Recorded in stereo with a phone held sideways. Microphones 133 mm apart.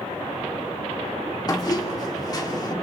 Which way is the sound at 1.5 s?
30° left (ahead or behind).